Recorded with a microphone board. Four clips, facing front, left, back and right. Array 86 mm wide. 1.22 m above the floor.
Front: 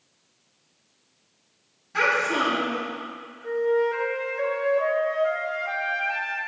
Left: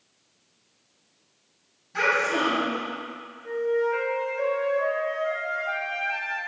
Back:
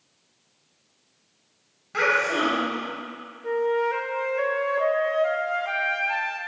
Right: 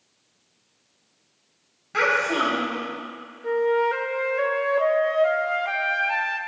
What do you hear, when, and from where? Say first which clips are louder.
1.9 s a child speaking: right 2 dB, even; 120° right, 3.5 m
3.4 s a flute: right 4 dB, front 1 dB; 110° right, 0.8 m